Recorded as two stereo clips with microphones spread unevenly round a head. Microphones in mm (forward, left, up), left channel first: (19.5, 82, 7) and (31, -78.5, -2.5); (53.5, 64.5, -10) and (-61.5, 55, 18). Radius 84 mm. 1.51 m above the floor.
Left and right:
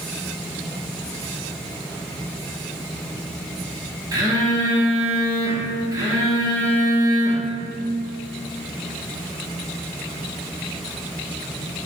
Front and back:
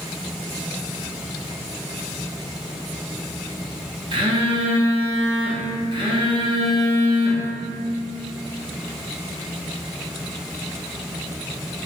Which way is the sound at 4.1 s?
155° right.